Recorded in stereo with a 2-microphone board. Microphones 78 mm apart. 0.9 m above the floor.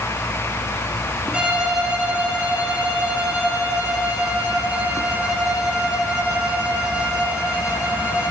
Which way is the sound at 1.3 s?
15° right (ahead or behind).